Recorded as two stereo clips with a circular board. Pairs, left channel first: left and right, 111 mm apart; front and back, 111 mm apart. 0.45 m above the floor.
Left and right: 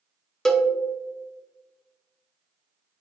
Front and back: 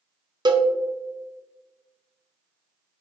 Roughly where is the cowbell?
Behind.